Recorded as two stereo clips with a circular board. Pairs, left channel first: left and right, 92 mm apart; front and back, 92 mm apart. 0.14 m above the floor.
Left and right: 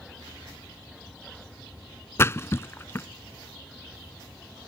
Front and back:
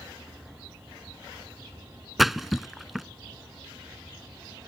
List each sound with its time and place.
2.2 s a splash: 95° left